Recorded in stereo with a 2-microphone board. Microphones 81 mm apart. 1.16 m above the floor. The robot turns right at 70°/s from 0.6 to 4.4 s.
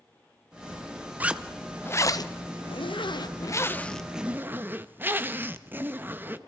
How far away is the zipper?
About 0.9 m.